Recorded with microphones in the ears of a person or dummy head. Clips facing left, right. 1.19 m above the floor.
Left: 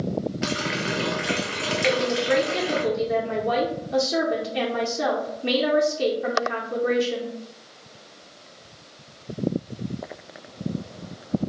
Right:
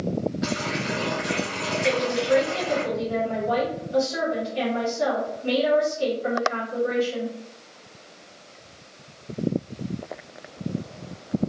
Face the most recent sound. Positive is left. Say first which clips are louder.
# left 1 dB
turn(degrees=85)